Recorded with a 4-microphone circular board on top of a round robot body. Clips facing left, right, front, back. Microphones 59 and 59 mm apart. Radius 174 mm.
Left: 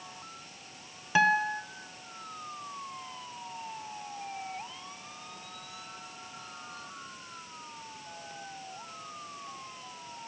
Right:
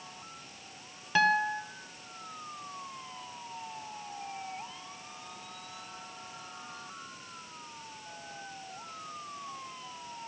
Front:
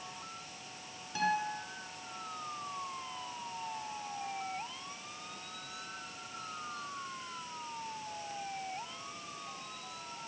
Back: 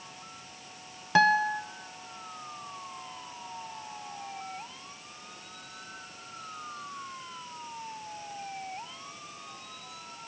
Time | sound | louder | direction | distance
1.1 | a guitar | left 1 dB, back 10 dB | 170° left | 1.3 m